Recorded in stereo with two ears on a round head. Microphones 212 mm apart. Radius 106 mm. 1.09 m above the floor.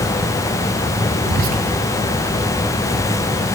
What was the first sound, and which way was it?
Whispering, 40° right (ahead or behind).